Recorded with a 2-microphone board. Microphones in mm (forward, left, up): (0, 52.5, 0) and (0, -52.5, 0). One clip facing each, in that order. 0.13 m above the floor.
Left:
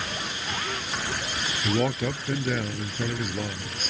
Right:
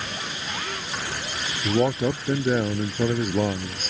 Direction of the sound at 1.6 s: 20° right (ahead or behind).